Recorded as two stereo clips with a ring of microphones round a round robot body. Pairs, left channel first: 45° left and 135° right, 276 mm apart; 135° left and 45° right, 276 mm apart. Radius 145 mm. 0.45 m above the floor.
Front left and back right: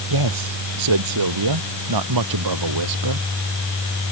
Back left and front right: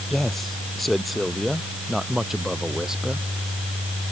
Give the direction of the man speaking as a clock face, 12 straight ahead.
5 o'clock.